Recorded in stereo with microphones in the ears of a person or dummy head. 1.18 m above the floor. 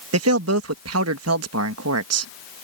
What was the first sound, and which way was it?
A man speaking, 75° right (ahead or behind).